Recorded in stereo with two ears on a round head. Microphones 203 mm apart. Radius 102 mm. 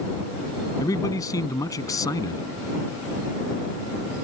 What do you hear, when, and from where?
0.8 s a man speaking: 15° left (ahead or behind)